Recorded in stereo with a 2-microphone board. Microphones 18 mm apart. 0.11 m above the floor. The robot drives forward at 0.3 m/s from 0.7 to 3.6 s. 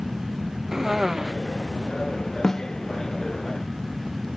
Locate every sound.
0.7 s a cough: 30° right (ahead or behind); by 1.3 s 25° right (ahead or behind)
2.4 s a snare drum: 20° left (ahead or behind)